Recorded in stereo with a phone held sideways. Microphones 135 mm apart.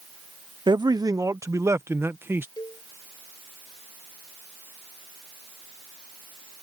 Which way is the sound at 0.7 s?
35° right (ahead or behind).